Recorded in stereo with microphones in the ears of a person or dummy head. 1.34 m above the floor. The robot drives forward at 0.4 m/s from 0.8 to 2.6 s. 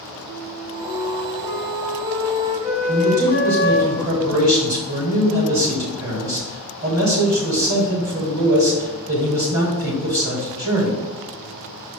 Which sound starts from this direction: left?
A flute, at 0.3 s.